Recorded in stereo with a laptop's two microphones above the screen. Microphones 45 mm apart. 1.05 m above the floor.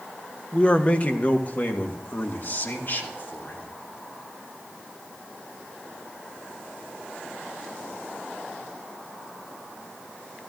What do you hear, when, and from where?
0.5 s a man speaking: 25° left (ahead or behind), 0.9 m; by 3.7 s 55° left (ahead or behind), 2.5 m